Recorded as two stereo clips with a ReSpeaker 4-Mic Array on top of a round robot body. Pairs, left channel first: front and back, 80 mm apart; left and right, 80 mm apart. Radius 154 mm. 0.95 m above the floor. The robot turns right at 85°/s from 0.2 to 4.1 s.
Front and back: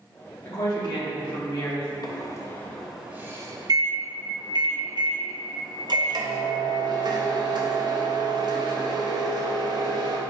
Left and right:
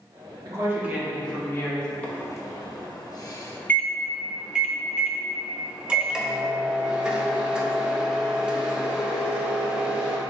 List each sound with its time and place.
0.5 s a woman speaking: 55° right, 1.4 m; by 1.9 s 70° left, 1.4 m
2.0 s a microwave: 15° left, 0.8 m; by 10.2 s 170° right, 0.8 m